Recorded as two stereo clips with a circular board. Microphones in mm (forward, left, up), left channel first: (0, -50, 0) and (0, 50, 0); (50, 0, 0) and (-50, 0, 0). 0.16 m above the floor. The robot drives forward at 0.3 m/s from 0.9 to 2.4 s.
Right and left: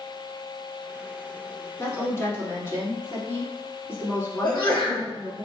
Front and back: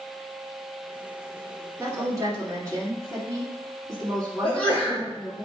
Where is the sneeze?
70° right, 1.8 m.